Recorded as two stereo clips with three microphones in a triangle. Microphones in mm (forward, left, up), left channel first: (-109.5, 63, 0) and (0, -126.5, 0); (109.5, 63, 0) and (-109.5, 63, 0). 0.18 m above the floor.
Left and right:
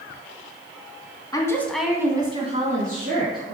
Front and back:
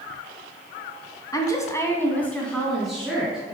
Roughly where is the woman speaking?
Ahead left.